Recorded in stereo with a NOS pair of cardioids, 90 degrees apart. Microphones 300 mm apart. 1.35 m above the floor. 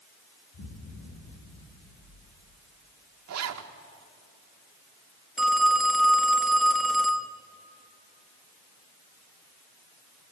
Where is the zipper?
55° right, 1.8 m.